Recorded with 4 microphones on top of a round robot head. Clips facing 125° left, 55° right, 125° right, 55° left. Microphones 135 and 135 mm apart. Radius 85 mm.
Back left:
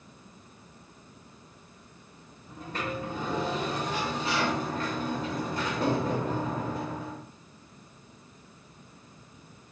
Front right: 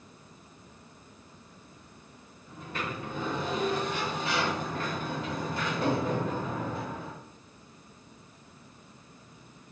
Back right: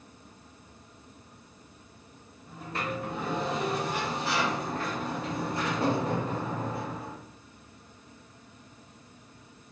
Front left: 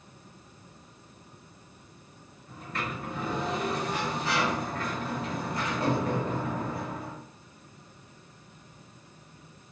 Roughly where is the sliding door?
Behind.